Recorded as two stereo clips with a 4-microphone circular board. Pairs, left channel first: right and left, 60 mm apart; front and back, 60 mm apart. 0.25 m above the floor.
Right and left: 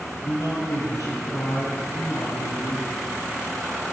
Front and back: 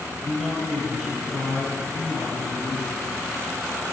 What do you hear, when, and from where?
0.2 s a man speaking: 95° right, 4 m